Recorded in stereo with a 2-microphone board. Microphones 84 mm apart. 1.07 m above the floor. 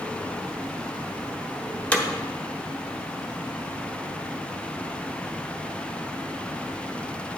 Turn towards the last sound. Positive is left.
turn(degrees=15)  # may be behind; listen again after turning